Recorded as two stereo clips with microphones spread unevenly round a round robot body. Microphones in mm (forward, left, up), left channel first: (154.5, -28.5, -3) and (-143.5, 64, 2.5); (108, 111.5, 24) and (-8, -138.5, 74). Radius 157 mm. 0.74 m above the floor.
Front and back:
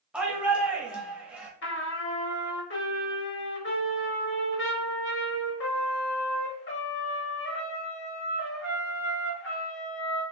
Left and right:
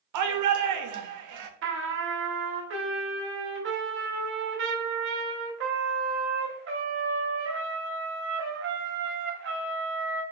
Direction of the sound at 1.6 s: 70° right.